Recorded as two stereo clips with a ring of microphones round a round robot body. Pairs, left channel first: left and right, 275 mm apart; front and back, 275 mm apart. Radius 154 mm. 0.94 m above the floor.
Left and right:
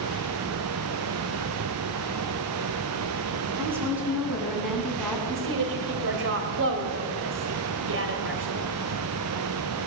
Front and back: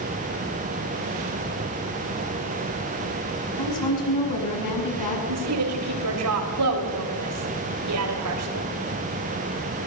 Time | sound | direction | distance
3.6 | a woman speaking | 10° right | 7.5 m
5.3 | a woman speaking | 140° right | 4.5 m